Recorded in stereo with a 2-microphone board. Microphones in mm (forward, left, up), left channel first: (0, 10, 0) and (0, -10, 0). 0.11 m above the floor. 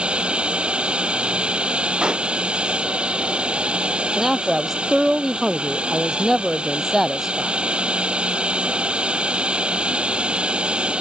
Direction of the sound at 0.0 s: 60° right (ahead or behind).